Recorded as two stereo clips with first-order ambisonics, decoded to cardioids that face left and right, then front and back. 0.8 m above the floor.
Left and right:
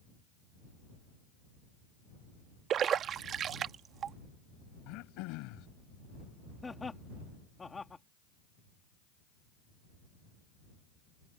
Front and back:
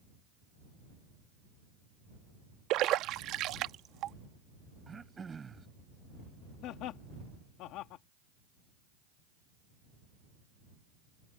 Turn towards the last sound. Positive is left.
turn(degrees=15)